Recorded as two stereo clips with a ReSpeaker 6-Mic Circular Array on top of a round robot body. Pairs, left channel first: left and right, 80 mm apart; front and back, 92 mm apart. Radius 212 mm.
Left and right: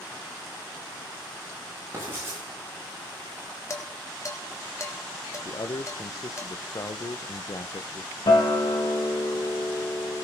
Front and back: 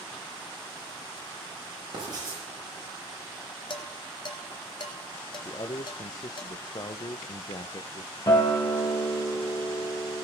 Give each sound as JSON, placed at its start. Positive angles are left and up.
{"t": 1.9, "sound": "writing", "azimuth_deg": -145, "distance_m": 8.0}
{"t": 3.7, "sound": "dishes clattering", "azimuth_deg": 35, "distance_m": 1.2}
{"t": 5.5, "sound": "a man speaking", "azimuth_deg": 40, "distance_m": 0.6}
{"t": 8.3, "sound": "a guitar", "azimuth_deg": 55, "distance_m": 2.5}